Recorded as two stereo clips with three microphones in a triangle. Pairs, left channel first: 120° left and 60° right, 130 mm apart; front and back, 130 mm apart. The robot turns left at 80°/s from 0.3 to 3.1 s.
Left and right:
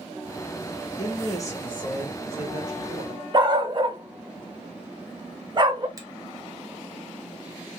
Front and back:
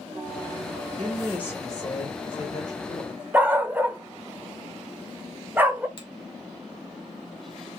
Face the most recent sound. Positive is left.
turn(degrees=-15)